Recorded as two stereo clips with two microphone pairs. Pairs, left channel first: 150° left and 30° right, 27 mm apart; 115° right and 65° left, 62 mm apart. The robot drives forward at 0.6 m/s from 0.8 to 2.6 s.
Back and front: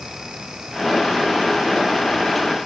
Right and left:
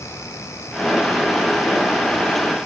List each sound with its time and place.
Only background noise.